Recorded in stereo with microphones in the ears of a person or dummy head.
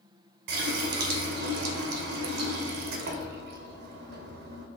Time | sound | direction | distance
0.5 | a running tap | 60° right (ahead or behind) | 0.8 m